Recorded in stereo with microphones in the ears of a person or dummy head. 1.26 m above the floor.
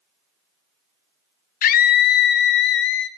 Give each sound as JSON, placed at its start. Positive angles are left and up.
{"t": 1.6, "sound": "a scream", "side_deg": 40, "distance_m": 1.0}